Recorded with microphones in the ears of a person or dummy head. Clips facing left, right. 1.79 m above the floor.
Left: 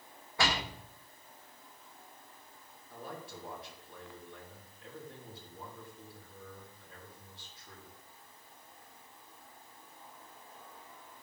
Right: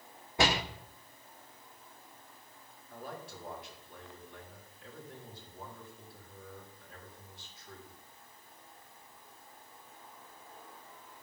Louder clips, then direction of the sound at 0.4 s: Right 4 dB; 25° right (ahead or behind).